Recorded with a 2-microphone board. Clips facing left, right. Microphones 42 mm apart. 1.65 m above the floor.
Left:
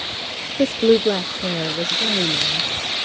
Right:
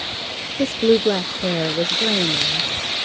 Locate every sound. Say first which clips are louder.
0.6 s a woman speaking: left 1 dB; 30° left (ahead or behind); by 2.7 s 45° right (ahead or behind)